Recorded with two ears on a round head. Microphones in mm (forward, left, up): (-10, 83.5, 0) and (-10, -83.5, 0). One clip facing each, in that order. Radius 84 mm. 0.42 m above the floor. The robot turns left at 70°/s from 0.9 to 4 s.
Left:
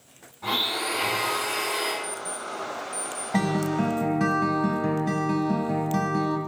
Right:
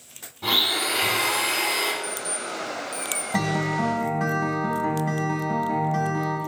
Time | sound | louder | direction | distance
0.4 | a blender | right 2 dB | 45° right | 4 m
2.0 | an alarm clock | right 2 dB | 10° right (ahead or behind) | 1.3 m
3.3 | a guitar | left 1 dB | straight behind | 1.4 m